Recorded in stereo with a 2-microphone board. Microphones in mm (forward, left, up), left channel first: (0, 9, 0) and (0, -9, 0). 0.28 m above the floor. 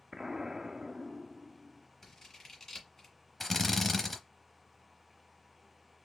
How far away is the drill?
About 0.7 m.